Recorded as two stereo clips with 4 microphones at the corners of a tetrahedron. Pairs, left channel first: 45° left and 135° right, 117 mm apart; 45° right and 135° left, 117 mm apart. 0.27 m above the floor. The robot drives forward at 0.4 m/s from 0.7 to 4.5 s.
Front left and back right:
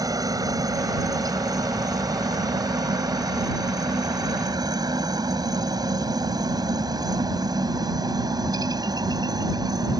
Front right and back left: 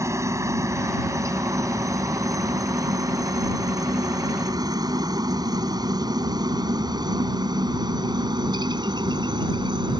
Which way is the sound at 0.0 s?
175° right.